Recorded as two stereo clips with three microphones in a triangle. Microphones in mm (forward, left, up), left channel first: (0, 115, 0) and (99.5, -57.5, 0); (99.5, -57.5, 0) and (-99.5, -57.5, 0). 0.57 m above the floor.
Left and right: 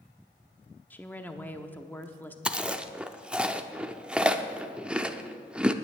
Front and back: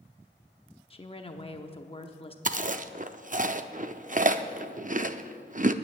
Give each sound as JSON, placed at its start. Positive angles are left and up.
{"t": 0.9, "sound": "a woman speaking", "azimuth_deg": 45, "distance_m": 0.7}
{"t": 2.5, "sound": "chewing", "azimuth_deg": -145, "distance_m": 0.5}